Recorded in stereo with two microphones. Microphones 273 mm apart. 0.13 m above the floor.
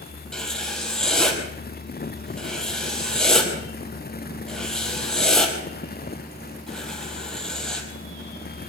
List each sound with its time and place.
0.3 s writing: centre (ahead or behind), 4 m